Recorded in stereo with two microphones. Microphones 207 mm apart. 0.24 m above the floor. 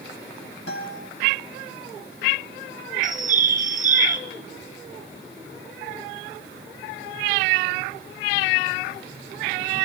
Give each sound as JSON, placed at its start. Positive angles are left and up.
{"t": 0.7, "sound": "a guitar", "side_deg": 65, "distance_m": 5.5}
{"t": 3.0, "sound": "a bird", "side_deg": -40, "distance_m": 1.0}